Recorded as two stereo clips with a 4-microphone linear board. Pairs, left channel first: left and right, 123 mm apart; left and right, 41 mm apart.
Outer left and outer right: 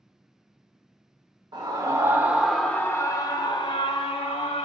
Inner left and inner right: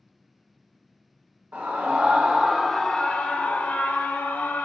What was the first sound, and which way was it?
A scream, 40° right (ahead or behind).